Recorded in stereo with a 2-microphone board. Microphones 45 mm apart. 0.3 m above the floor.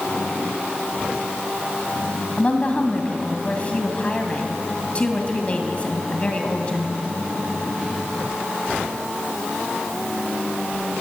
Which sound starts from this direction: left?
A woman speaking, at 2.4 s.